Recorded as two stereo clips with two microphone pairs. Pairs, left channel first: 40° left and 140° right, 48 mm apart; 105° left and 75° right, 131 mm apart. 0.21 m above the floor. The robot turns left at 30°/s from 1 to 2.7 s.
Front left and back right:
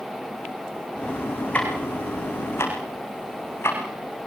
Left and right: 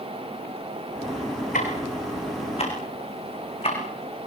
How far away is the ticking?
About 7 m.